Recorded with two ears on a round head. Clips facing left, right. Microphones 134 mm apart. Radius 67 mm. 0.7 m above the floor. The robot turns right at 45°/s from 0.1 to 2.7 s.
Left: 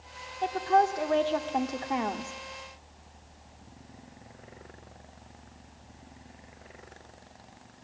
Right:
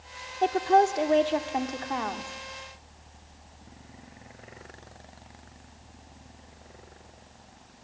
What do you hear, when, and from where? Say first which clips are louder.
0.4 s a woman speaking: right 3 dB; 55° right, 1.6 m; by 2.3 s 30° left, 1.6 m